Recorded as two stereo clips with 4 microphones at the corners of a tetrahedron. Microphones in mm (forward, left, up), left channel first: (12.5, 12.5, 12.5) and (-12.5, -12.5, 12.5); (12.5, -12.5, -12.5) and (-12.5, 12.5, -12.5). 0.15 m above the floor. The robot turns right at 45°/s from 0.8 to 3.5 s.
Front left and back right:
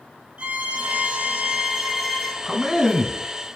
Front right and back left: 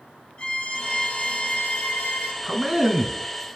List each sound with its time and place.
0.4 s a violin: 100° right, 1.2 m; by 2.3 s 30° right, 1.2 m
2.4 s a man speaking: 170° left, 1.1 m; by 3.2 s 160° right, 1.1 m